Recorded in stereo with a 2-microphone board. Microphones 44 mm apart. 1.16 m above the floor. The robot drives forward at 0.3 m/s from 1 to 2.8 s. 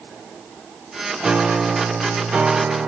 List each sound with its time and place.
1.2 s a piano: 20° right (ahead or behind), 0.9 m; by 2.9 s 30° right (ahead or behind), 0.7 m